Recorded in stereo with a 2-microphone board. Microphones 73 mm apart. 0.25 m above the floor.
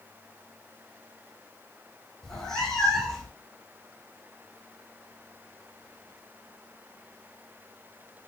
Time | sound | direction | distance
2.2 | a cat meowing | 5° left (ahead or behind) | 1.0 m